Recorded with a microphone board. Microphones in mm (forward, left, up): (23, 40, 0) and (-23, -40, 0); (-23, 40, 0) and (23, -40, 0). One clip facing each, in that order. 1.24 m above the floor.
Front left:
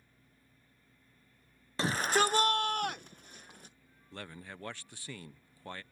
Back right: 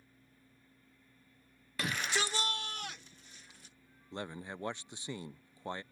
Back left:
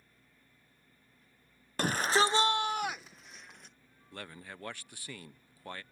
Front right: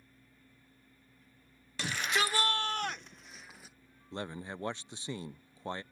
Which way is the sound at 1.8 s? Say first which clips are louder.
Front left 7 dB, back left 5 dB; 110° left.